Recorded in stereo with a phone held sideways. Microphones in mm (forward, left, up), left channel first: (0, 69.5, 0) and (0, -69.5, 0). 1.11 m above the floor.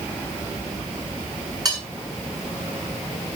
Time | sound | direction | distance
1.6 | cutlery clinking | 30° right (ahead or behind) | 7 m